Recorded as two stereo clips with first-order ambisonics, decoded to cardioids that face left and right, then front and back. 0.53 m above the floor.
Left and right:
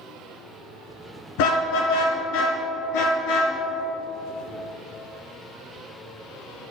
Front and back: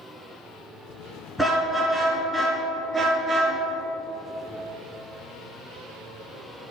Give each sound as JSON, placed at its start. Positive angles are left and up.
{"t": 1.4, "sound": "a car horn", "azimuth_deg": 90, "distance_m": 4.5}